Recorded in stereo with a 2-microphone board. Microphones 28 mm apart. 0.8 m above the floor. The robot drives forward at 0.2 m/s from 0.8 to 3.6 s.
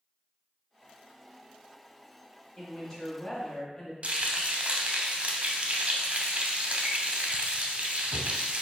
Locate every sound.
2.6 s a woman speaking: 25° left (ahead or behind), 1.7 m; by 3.9 s 30° left (ahead or behind), 1.5 m
4.0 s frying: 40° right (ahead or behind), 0.7 m